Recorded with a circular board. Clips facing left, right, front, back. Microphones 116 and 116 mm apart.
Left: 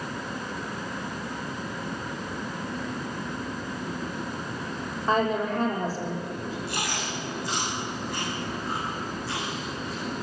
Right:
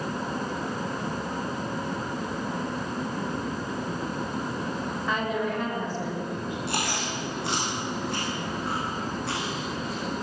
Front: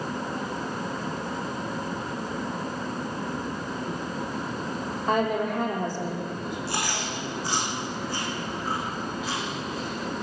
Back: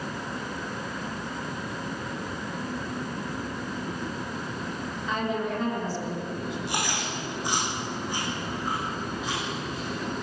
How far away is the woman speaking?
About 6 m.